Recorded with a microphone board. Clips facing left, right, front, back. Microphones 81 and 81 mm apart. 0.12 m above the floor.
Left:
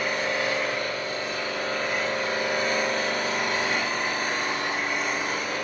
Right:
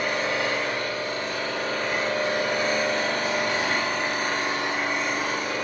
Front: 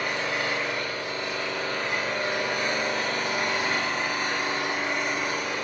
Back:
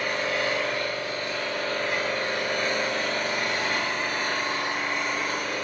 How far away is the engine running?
About 3 m.